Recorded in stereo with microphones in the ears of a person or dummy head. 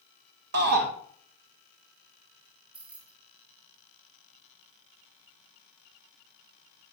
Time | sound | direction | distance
0.5 | a shout | 50° right (ahead or behind) | 1.9 m
2.7 | keys jangling | 5° right (ahead or behind) | 1.6 m